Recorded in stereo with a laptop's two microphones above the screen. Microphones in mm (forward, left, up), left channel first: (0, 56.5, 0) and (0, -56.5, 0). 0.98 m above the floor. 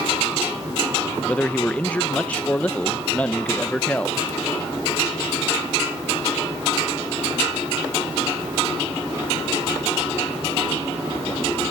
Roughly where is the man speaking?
Centre.